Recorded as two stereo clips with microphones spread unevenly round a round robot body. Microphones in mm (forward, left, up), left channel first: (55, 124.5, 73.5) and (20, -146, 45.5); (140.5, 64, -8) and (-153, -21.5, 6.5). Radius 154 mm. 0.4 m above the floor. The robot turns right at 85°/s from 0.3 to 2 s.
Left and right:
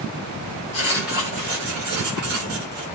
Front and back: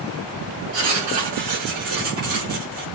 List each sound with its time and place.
0.7 s writing: 150° left, 6.5 m; by 2.8 s 100° right, 6.5 m